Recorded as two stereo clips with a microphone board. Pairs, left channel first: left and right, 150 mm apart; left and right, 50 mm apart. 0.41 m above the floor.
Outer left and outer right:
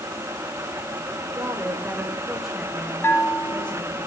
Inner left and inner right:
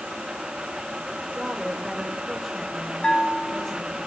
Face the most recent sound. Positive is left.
turn(degrees=15)  # may be behind; listen again after turning